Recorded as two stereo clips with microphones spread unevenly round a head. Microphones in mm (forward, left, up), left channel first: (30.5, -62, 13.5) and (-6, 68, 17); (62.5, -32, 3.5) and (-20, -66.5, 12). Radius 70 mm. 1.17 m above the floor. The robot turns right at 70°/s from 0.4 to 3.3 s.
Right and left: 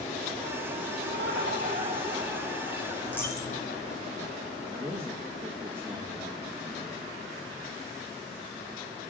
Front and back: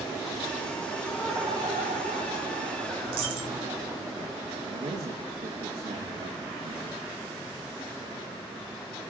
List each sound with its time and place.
1.0 s laughter: 95° left, 5 m; by 4.0 s 105° right, 5 m
3.0 s a dropped coin: 160° right, 4 m; by 3.6 s 140° right, 4 m
4.7 s a man speaking: straight behind, 2 m